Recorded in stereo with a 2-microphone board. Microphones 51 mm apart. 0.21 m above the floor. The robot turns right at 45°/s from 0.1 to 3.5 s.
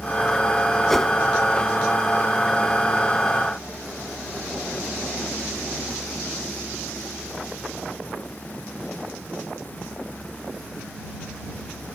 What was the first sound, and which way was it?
A whoosh, 10° left (ahead or behind).